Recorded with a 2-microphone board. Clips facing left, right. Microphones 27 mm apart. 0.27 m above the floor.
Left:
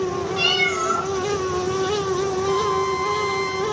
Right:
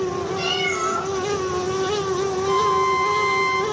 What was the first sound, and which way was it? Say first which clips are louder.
A cat meowing: left 4 dB; 60° left (ahead or behind).